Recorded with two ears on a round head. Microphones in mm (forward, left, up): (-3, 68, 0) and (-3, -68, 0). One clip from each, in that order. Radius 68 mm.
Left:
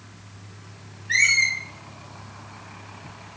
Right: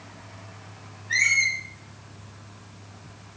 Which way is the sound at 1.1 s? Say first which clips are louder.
Left 2 dB; 70° left (ahead or behind).